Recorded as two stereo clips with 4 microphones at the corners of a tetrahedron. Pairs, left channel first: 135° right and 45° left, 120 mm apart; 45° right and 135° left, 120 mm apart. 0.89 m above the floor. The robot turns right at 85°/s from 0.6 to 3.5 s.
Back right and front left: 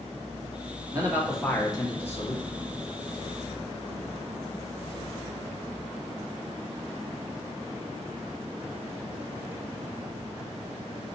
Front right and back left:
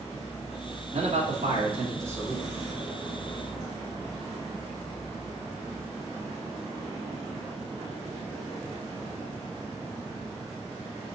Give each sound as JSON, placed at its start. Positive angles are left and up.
{"t": 0.9, "sound": "a man speaking", "azimuth_deg": 100, "distance_m": 1.8}